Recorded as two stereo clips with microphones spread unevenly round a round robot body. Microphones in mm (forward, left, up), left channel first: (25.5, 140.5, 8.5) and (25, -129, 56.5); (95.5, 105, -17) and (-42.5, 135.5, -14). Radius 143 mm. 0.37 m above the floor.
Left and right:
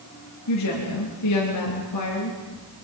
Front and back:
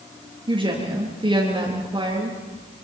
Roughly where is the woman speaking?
Left.